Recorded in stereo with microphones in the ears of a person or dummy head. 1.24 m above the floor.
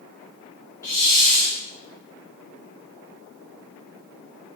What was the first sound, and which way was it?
A hiss, 15° left (ahead or behind).